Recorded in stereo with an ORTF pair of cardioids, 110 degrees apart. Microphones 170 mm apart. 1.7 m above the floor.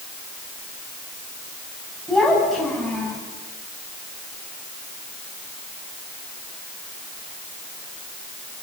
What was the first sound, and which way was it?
A child speaking, straight ahead.